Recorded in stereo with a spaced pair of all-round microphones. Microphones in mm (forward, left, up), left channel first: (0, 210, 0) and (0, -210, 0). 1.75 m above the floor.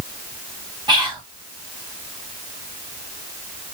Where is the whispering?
10° right (ahead or behind), 1.4 m.